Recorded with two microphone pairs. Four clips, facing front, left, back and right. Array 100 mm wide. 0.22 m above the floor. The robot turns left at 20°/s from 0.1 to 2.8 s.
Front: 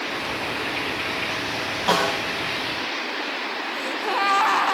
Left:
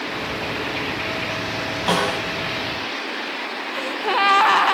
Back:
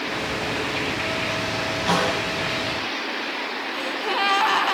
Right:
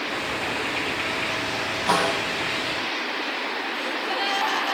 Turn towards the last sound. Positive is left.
turn(degrees=80)